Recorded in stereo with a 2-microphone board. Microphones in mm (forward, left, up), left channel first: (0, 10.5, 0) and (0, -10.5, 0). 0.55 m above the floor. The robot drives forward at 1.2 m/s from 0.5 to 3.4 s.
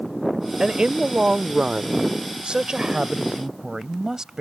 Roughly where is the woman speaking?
Right.